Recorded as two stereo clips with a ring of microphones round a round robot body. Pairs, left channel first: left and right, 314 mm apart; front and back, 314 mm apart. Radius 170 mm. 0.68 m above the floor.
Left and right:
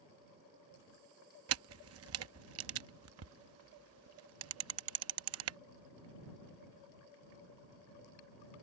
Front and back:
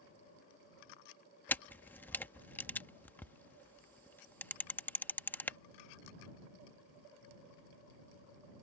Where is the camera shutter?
80° right.